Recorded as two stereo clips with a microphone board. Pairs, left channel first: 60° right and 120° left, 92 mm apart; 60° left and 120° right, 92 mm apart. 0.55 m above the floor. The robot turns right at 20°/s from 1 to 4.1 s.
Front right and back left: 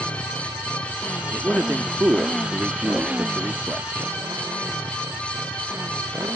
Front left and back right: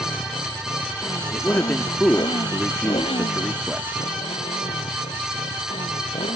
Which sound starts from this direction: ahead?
A motorcycle, at 0.0 s.